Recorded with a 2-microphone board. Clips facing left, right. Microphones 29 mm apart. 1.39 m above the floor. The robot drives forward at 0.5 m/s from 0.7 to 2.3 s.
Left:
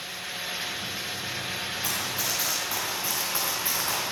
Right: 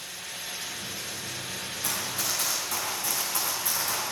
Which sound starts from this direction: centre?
Running footsteps, at 1.8 s.